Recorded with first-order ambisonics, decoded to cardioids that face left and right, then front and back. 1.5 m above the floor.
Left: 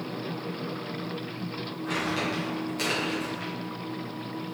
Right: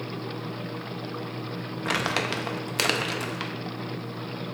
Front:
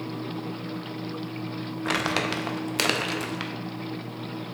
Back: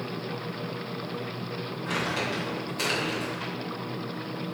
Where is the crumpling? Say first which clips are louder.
Right 3 dB, front 4 dB; 45° right, 0.5 m.